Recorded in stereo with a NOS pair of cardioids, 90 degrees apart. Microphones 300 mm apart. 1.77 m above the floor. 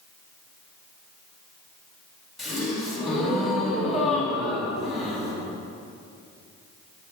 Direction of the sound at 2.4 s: Straight ahead.